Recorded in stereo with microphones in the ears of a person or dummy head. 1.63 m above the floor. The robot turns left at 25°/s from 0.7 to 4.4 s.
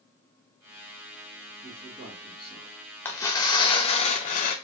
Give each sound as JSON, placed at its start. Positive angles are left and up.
{"t": 1.6, "sound": "a man speaking", "side_deg": -5, "distance_m": 2.0}
{"t": 3.0, "sound": "tearing paper", "azimuth_deg": 165, "distance_m": 0.5}